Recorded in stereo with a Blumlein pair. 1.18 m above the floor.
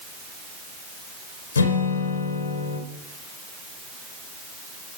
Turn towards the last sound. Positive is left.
turn(degrees=65)